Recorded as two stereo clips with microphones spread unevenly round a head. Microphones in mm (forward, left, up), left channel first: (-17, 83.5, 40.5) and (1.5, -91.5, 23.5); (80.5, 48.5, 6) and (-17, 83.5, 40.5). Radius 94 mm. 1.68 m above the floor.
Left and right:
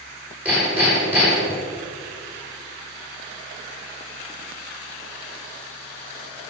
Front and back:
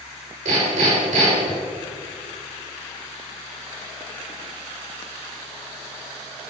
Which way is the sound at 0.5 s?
165° right.